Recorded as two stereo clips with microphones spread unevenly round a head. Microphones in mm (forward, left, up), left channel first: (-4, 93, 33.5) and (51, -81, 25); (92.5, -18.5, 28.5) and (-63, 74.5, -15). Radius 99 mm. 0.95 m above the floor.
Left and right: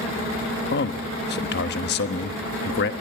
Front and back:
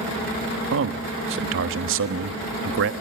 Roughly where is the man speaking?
Behind left.